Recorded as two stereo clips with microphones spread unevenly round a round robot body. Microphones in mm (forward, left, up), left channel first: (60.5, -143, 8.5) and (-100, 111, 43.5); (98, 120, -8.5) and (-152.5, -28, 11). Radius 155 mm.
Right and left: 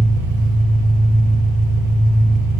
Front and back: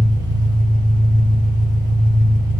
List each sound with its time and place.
0.0 s an engine running: 135° left, 2 m